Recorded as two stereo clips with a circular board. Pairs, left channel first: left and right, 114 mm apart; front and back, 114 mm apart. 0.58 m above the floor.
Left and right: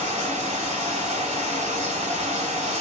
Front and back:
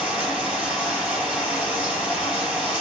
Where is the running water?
100° right, 3 m.